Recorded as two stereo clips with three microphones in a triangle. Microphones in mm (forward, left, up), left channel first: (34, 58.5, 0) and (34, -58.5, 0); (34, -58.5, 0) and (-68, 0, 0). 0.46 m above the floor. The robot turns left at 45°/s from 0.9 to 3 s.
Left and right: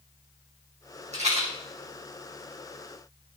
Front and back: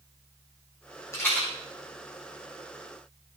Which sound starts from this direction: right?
A rattle, at 1.1 s.